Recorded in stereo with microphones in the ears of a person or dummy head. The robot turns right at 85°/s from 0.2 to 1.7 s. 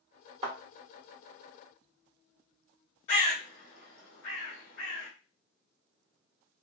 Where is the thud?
30° right (ahead or behind), 1.7 m; by 0.6 s 25° right (ahead or behind), 1.7 m.